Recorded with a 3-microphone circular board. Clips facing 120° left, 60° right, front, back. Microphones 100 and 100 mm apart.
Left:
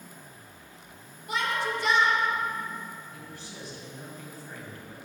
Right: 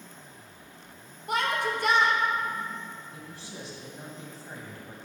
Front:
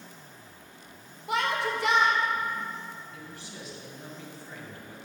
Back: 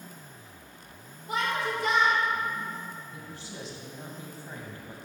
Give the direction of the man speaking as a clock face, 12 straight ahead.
4 o'clock.